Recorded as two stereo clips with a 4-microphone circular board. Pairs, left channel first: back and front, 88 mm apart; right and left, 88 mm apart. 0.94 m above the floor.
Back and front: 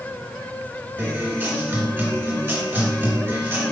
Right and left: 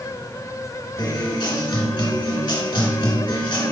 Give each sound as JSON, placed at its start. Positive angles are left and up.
{"t": 1.0, "sound": "a guitar", "azimuth_deg": -60, "distance_m": 2.5}